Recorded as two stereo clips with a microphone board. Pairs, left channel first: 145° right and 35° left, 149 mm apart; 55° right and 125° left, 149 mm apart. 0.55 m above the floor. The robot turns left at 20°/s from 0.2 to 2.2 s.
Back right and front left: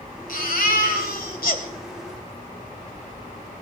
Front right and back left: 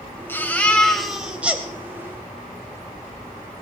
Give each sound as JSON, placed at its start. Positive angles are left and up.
{"t": 0.3, "sound": "a baby crying", "azimuth_deg": -130, "distance_m": 2.0}